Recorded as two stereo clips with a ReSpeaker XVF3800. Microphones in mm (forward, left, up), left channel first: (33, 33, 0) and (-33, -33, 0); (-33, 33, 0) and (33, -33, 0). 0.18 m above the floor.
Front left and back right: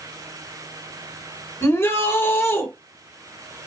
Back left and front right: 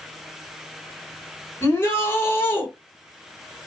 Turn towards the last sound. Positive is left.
turn(degrees=90)